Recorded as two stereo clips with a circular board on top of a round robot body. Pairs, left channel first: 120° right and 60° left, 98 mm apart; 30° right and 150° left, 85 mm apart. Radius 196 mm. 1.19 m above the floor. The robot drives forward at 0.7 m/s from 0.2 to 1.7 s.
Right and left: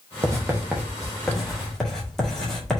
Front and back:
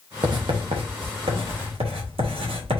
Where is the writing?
115° left, 0.8 m; by 2.8 s 155° left, 1.5 m.